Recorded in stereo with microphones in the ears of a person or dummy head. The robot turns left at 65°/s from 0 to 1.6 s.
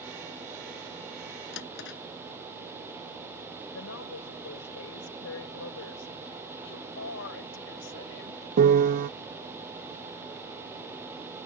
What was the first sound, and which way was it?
A drawer, 75° left (ahead or behind).